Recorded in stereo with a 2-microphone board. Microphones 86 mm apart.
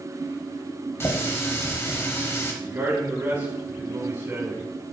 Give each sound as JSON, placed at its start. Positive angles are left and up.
{"t": 1.0, "sound": "a running tap", "side_deg": 30, "distance_m": 1.2}
{"t": 2.6, "sound": "a man speaking", "side_deg": -25, "distance_m": 2.5}